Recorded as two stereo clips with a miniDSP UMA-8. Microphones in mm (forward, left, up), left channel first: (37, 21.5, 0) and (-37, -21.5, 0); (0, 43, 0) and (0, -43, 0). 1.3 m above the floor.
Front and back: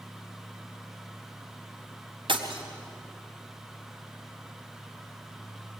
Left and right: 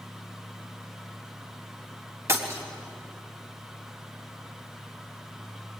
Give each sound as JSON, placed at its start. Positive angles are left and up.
{"t": 2.3, "sound": "breaking glass", "azimuth_deg": -145, "distance_m": 4.0}